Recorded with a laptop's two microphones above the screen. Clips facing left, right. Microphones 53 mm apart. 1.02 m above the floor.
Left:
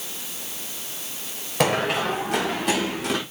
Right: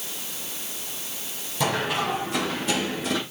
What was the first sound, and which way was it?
Running footsteps, 75° left (ahead or behind).